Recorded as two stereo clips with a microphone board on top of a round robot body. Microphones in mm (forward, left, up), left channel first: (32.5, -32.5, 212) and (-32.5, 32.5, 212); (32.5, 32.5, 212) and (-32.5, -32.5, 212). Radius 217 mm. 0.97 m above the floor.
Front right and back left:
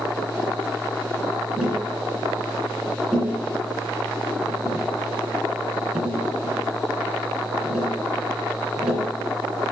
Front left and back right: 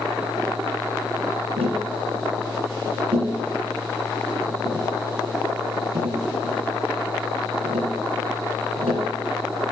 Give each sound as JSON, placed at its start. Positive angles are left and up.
{"t": 1.6, "sound": "tapping", "azimuth_deg": -145, "distance_m": 2.5}